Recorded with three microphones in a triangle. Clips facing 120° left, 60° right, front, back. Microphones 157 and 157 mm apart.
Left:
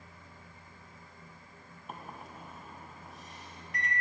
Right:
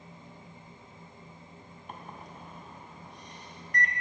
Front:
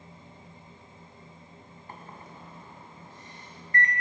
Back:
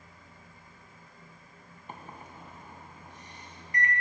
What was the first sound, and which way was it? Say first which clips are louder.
A microwave: even, back 1 dB; 160° right.